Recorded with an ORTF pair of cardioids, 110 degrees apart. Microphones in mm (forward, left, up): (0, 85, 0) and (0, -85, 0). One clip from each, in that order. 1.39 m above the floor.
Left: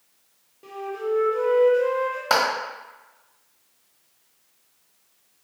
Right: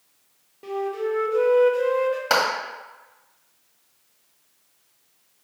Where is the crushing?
I don't hear crushing.